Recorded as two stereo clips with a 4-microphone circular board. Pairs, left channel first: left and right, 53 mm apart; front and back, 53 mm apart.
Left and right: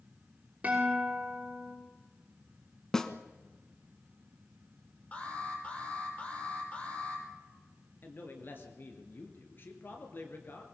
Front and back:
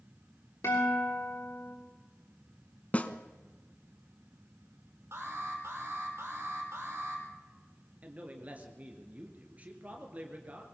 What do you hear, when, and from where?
0.6 s a guitar: 25° right, 6 m
2.9 s a snare drum: 20° left, 1.4 m
5.1 s an alarm: 150° left, 5.5 m
8.0 s a man speaking: 125° left, 3 m